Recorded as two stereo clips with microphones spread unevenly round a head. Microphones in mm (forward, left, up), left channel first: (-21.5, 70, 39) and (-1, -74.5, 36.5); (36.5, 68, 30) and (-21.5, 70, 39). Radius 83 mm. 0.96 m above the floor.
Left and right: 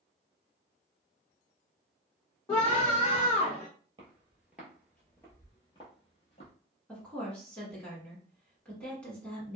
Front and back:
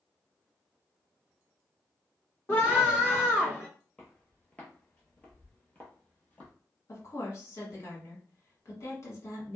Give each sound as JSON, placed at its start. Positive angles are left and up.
{"t": 2.5, "sound": "a scream", "azimuth_deg": 35, "distance_m": 1.1}
{"t": 4.0, "sound": "footsteps", "azimuth_deg": -85, "distance_m": 1.0}
{"t": 6.9, "sound": "a woman speaking", "azimuth_deg": 15, "distance_m": 1.8}